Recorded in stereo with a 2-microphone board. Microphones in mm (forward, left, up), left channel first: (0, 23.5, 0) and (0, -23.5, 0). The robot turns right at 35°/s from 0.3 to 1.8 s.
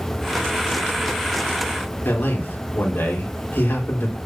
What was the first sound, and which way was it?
A man speaking, 55° left (ahead or behind).